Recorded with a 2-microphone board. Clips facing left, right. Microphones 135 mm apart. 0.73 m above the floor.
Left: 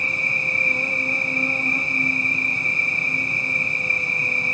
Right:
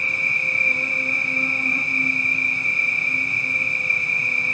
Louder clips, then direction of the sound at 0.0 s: Left 1 dB; 30° left (ahead or behind).